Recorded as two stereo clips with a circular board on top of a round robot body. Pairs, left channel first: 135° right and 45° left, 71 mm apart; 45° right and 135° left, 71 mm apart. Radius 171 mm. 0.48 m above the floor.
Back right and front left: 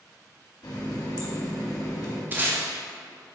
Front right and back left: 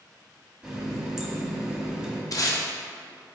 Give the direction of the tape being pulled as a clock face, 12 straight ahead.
1 o'clock.